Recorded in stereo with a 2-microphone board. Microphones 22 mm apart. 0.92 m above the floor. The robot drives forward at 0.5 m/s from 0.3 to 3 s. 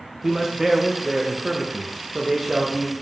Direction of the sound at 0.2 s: 20° right (ahead or behind).